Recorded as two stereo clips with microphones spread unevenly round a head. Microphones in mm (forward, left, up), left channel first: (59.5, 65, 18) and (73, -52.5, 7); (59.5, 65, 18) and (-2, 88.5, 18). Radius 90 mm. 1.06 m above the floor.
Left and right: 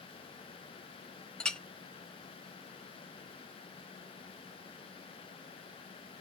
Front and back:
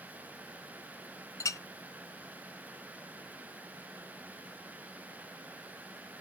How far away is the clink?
About 0.9 m.